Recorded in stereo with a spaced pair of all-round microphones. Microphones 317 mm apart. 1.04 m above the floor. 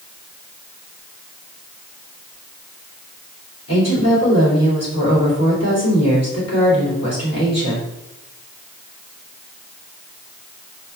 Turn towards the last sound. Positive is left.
turn(degrees=50)  # may be behind; listen again after turning